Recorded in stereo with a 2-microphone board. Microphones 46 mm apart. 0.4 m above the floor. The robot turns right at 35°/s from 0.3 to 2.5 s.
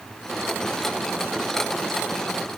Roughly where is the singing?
I don't hear singing.